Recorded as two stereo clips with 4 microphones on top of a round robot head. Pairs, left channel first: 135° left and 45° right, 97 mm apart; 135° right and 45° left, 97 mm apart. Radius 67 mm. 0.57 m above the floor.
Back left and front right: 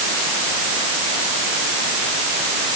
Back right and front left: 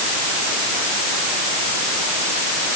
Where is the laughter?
I don't hear laughter.